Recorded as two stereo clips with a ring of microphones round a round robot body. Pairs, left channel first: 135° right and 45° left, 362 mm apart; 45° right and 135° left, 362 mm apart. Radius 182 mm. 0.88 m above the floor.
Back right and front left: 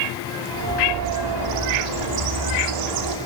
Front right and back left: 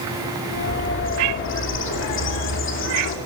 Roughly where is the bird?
Ahead.